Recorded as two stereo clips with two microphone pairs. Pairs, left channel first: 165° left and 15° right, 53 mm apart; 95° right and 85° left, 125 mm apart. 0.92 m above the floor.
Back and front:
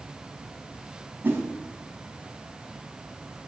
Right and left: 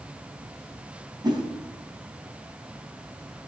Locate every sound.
1.2 s a whoosh: 30° left, 3 m